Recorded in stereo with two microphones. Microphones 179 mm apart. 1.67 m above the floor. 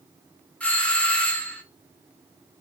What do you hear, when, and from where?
0.6 s a doorbell: 5° left (ahead or behind), 0.5 m